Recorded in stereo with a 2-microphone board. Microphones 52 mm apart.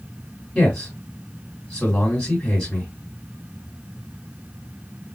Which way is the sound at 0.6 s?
20° left (ahead or behind).